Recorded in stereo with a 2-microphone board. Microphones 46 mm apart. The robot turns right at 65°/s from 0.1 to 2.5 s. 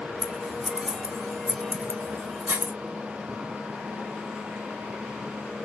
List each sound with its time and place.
0.2 s scissors: 15° left (ahead or behind), 1.2 m; by 2.7 s 45° right (ahead or behind), 1.2 m